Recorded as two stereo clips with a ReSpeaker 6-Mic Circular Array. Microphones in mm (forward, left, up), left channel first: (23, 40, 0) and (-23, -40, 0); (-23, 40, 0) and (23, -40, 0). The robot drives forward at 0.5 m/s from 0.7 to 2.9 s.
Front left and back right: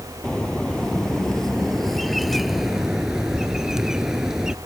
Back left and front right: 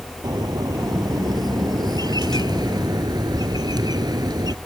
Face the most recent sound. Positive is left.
turn(degrees=-35)